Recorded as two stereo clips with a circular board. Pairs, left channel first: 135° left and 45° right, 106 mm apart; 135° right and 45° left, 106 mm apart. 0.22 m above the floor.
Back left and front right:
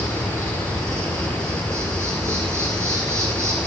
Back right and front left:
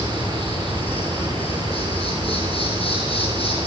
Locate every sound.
0.0 s an insect: 110° right, 3 m